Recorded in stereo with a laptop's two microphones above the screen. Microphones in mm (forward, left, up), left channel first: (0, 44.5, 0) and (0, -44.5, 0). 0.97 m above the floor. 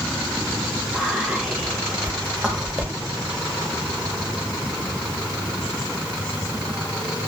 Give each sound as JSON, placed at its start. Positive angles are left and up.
{"t": 0.9, "sound": "whispering", "side_deg": -10, "distance_m": 0.9}